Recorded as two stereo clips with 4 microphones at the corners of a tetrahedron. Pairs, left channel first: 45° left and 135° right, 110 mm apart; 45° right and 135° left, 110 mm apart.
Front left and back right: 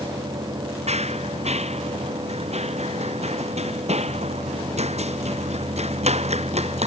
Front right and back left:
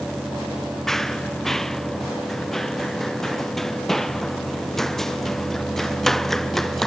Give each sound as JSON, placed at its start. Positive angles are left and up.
{"t": 0.9, "sound": "running footsteps", "azimuth_deg": -130}